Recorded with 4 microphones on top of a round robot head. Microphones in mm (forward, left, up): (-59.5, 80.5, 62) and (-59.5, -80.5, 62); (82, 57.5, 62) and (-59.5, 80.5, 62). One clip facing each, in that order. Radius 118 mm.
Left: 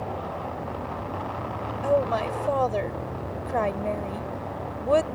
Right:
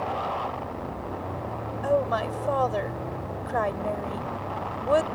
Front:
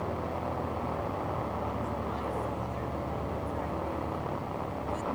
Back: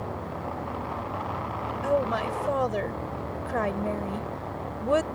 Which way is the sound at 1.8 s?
170° left.